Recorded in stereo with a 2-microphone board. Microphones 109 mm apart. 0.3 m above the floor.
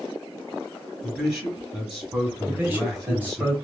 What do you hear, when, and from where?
1.0 s a man speaking: 15° right (ahead or behind), 1.2 m
2.5 s a man speaking: 15° right (ahead or behind), 1.6 m